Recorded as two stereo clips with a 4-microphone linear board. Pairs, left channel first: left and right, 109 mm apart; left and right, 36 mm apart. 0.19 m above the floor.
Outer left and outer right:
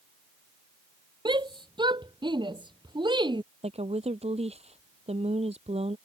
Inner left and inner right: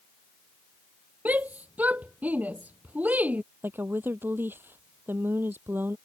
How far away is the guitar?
I don't hear a guitar.